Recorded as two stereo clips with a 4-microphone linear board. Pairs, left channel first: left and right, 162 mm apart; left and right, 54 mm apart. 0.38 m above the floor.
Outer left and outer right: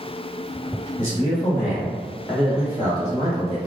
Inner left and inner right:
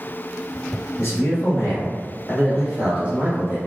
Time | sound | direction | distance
1.0 | a man speaking | 40° left (ahead or behind) | 1.4 m